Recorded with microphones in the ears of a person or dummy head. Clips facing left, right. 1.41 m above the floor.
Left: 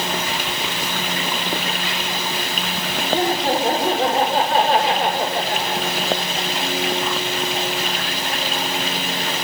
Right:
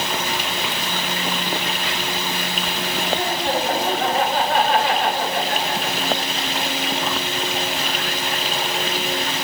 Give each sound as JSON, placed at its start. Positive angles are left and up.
{"t": 3.1, "sound": "laughter", "side_deg": 40, "distance_m": 5.0}